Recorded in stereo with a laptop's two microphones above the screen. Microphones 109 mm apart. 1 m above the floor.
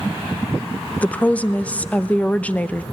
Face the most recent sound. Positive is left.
turn(degrees=15)  # may be behind; listen again after turning